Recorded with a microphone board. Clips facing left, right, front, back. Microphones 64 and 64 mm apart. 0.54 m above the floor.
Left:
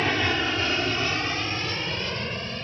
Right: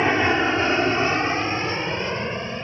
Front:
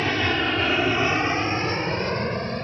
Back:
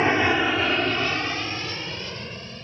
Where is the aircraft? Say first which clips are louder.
Right 5 dB, back 3 dB; 135° right; by 2.7 s 20° right.